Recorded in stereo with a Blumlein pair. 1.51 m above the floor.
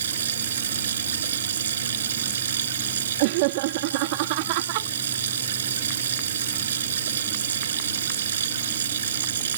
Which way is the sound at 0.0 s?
65° right.